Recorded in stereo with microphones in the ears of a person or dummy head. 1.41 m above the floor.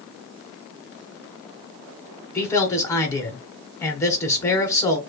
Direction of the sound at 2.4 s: 15° left (ahead or behind).